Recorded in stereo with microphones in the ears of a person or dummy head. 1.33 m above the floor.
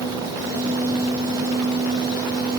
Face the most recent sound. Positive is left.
No sound to turn to.